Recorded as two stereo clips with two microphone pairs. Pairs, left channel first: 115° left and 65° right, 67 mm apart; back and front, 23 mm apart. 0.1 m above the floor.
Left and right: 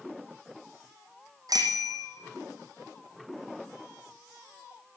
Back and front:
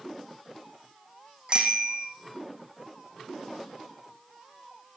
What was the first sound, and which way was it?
A bicycle bell, 40° right.